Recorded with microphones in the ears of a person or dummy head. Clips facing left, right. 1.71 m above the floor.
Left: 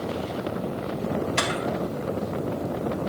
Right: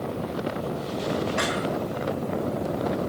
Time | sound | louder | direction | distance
1.4 | a camera shutter | right 1 dB | 85° left | 2.5 m